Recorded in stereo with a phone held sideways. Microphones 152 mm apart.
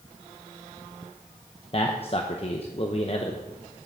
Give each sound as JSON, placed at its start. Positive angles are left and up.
{"t": 1.7, "sound": "a man speaking", "side_deg": 40, "distance_m": 0.9}